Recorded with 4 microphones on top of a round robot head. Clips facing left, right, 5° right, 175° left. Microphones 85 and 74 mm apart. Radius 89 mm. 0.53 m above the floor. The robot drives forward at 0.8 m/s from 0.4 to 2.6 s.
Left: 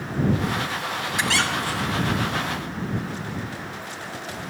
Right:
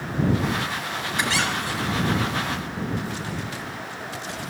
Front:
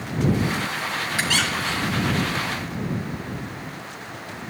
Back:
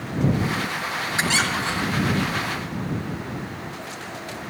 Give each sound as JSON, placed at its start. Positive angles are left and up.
{"t": 1.2, "sound": "a squeak", "azimuth_deg": 110, "distance_m": 4.5}